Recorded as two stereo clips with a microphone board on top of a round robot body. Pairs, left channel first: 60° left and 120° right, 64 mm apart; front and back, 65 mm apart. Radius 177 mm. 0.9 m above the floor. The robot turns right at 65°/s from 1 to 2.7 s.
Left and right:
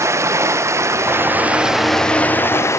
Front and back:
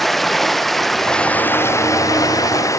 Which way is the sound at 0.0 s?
85° right.